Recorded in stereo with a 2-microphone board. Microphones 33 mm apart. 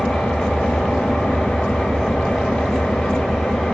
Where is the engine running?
55° left (ahead or behind), 3.5 m.